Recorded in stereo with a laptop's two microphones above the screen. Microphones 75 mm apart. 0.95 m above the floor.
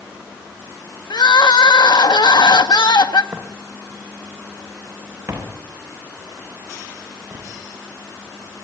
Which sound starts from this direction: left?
Crying, at 1.1 s.